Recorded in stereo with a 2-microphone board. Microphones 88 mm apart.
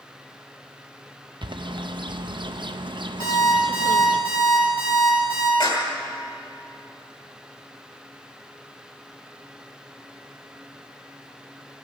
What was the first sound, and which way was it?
A bird, 65° right (ahead or behind).